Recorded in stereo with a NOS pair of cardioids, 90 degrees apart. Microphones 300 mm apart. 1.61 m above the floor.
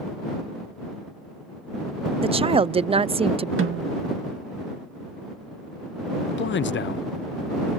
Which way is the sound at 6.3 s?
40° left.